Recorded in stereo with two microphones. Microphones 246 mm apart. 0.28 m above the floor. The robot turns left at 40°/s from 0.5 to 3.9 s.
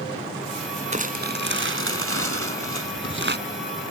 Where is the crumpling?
35° right; by 3.4 s 130° right.